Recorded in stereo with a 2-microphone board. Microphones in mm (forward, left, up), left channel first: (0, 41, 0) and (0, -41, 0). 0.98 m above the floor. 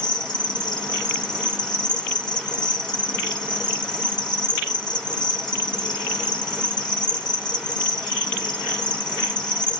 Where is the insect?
60° left (ahead or behind), 0.8 m.